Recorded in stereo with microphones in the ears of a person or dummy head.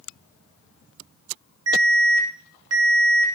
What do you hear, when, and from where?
1.7 s an alarm: 80° right, 3 m